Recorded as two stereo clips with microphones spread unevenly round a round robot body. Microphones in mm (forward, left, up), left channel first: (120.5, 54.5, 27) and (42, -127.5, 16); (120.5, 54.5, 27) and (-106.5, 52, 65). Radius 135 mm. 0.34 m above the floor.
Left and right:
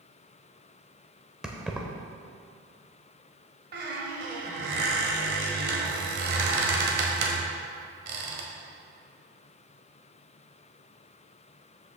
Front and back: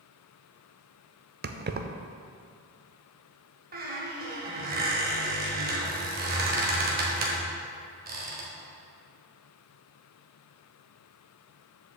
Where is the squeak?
130° right, 1.2 m.